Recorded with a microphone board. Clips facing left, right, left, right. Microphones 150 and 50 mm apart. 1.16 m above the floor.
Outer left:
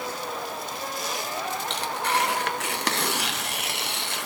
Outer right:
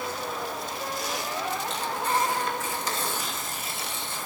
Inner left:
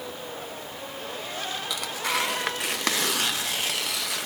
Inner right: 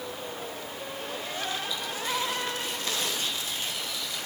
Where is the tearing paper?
70° left (ahead or behind), 0.7 m.